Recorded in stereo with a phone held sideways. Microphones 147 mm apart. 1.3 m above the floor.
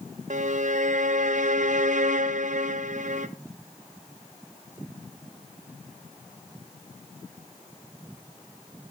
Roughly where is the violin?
Right.